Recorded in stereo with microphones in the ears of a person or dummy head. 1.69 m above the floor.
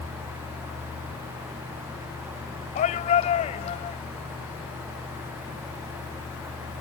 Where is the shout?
35° left (ahead or behind); by 4.0 s 25° left (ahead or behind).